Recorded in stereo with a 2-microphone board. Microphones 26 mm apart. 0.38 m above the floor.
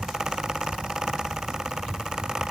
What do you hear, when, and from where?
Only background noise.